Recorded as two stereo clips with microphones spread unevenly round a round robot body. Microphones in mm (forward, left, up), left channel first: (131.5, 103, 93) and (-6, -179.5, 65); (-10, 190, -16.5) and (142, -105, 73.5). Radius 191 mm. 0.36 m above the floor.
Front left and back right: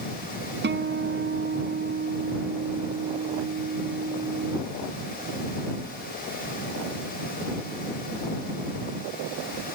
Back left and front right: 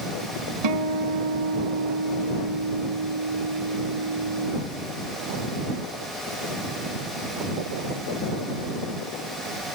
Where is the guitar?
60° right.